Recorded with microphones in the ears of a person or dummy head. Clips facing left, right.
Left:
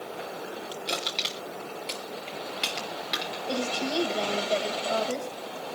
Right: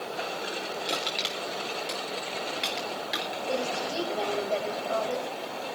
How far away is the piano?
I don't hear a piano.